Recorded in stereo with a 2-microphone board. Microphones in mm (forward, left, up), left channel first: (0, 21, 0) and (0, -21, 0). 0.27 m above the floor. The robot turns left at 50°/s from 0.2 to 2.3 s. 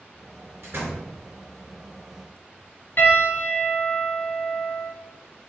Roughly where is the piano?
Left.